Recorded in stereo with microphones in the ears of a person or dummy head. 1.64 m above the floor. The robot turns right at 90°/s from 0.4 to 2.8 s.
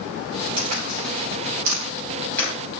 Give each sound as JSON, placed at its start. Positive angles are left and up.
{"t": 0.6, "sound": "a crack", "side_deg": -25, "distance_m": 4.5}